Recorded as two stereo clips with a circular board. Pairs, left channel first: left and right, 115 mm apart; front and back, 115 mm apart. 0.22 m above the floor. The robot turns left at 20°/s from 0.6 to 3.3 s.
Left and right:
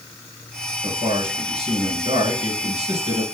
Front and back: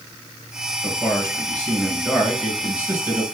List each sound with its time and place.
0.8 s a man speaking: 65° right, 3 m; by 3.2 s 110° right, 3 m